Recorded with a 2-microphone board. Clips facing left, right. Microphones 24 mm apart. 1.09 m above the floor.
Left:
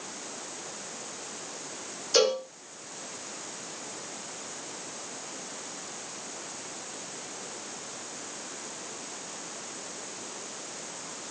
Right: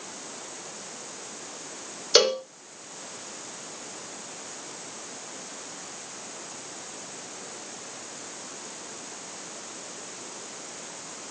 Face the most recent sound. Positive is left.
turn(degrees=-60)  # may be behind; listen again after turning